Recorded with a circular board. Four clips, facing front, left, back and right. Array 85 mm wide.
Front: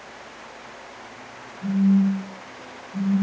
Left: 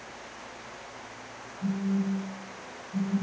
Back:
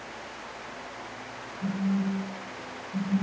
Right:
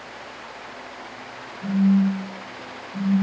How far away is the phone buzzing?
About 1.7 m.